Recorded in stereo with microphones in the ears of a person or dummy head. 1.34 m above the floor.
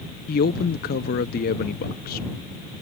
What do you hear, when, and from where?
0.3 s a man speaking: 45° left (ahead or behind)